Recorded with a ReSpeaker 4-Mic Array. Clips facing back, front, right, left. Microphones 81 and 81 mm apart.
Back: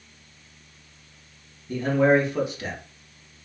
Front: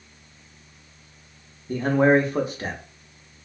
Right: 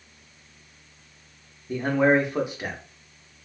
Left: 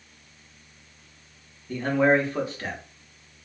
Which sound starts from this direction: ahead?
A man speaking, at 1.7 s.